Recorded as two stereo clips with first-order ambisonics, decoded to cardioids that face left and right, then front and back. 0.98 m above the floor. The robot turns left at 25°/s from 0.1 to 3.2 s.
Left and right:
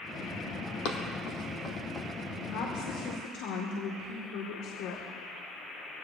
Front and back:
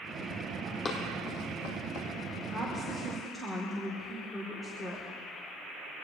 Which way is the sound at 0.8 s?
65° left.